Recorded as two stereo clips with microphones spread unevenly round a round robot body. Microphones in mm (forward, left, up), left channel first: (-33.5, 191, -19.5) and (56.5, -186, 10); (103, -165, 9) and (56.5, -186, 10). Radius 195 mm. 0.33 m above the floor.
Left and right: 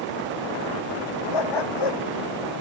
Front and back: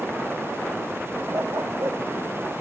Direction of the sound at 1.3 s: 130° left.